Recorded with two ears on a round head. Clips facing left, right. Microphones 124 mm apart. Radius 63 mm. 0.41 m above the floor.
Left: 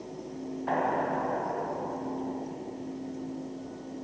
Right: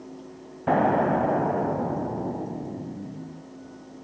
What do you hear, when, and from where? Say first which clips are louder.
0.7 s an explosion: right 8 dB; 60° right (ahead or behind), 0.6 m